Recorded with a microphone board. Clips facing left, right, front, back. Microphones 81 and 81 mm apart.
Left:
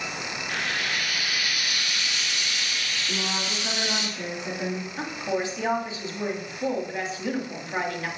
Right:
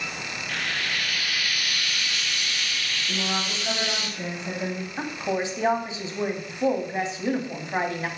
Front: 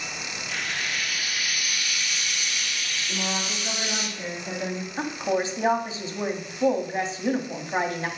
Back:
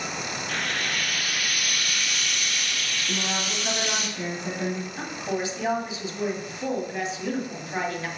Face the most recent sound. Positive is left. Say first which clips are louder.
# right 2 dB, front 7 dB
turn(degrees=-35)